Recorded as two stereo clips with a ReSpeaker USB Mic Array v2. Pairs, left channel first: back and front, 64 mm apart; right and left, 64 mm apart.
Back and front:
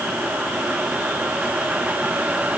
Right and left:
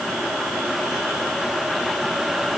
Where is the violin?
I don't hear a violin.